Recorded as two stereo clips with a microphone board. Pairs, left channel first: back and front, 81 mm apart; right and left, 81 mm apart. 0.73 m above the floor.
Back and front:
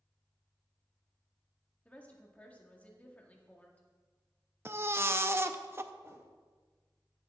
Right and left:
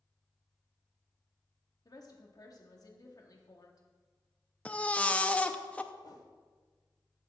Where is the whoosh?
55° right, 1.5 m.